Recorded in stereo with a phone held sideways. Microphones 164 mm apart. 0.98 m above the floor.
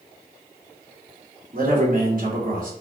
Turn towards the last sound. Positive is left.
turn(degrees=-60)  # may be behind; listen again after turning